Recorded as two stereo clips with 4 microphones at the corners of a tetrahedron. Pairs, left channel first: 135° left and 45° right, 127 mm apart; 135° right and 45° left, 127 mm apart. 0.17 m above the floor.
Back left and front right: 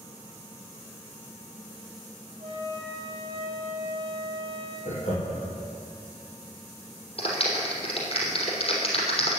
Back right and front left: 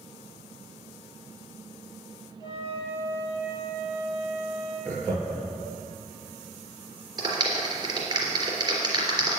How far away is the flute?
About 5 m.